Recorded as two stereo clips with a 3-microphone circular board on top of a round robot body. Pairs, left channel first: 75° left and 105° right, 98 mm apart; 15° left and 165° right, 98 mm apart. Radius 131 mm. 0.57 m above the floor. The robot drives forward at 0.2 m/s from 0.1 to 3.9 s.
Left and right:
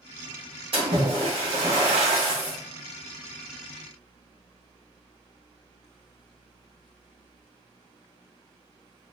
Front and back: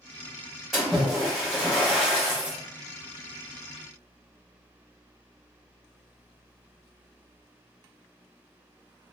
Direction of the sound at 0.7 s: 75° right.